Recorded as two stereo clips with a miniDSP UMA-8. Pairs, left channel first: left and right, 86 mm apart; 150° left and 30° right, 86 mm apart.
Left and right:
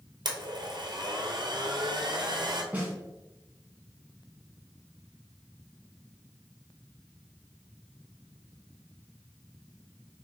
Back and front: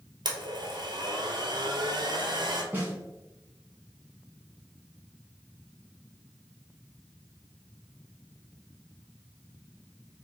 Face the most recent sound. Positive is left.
turn(degrees=-55)